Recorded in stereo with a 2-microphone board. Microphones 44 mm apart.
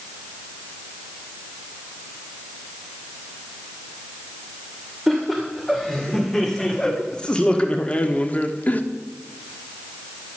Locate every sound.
5.1 s laughter: 5° left (ahead or behind), 2 m; by 8.8 s 40° left (ahead or behind), 1.2 m